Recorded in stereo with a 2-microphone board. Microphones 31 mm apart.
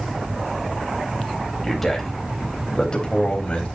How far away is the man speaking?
About 4 m.